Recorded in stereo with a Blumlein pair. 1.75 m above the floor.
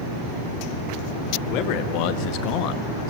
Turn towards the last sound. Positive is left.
turn(degrees=40)